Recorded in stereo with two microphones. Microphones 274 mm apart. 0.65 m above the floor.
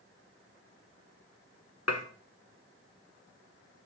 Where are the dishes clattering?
65° left (ahead or behind), 1.1 m.